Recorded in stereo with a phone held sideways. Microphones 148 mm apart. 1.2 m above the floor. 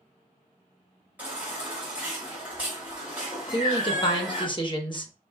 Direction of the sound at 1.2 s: 10° right (ahead or behind).